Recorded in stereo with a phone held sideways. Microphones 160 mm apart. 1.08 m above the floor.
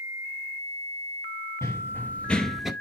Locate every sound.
1.6 s running footsteps: 15° left (ahead or behind), 1.4 m; by 2.7 s centre (ahead or behind), 1.0 m